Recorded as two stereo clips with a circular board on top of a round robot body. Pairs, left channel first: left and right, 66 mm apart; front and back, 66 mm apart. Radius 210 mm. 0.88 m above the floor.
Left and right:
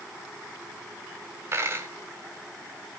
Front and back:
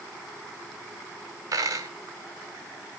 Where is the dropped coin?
140° right, 1.0 m.